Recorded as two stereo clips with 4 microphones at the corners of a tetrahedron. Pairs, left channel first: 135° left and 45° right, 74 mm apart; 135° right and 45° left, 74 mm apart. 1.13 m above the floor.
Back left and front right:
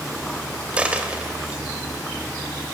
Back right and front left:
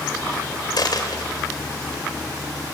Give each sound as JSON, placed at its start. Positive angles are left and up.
{"t": 0.8, "sound": "a dropped coin", "azimuth_deg": -120, "distance_m": 2.5}